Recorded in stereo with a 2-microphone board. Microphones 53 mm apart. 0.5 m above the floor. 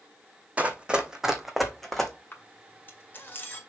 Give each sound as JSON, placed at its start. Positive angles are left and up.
{"t": 0.6, "sound": "running footsteps", "side_deg": -25, "distance_m": 1.2}
{"t": 2.3, "sound": "a camera shutter", "side_deg": 40, "distance_m": 2.0}